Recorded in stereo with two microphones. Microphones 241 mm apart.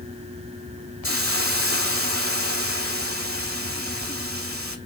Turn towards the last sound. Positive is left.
turn(degrees=-65)  # may be behind; listen again after turning